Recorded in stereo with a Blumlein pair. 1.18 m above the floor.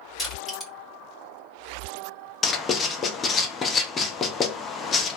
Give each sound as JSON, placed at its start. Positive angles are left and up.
{"t": 0.2, "sound": "crushing", "azimuth_deg": 10, "distance_m": 1.9}
{"t": 2.4, "sound": "writing", "azimuth_deg": 20, "distance_m": 0.5}